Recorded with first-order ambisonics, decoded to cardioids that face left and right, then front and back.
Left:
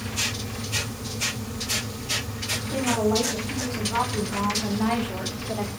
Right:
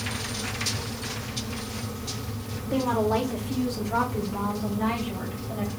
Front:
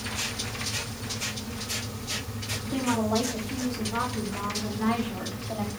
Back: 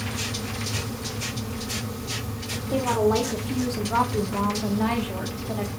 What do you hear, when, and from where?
2.7 s a woman speaking: 145° right, 1.3 m; by 5.7 s 145° left, 1.9 m